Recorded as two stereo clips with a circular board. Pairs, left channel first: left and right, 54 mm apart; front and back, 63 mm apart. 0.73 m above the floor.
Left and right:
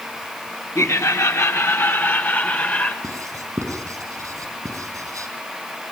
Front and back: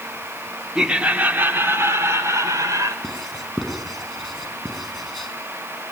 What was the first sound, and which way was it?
Laughter, 100° left.